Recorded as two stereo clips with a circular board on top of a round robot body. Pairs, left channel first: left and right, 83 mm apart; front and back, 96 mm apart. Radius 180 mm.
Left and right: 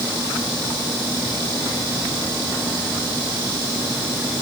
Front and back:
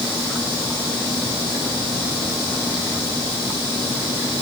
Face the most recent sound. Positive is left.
No sound to turn to.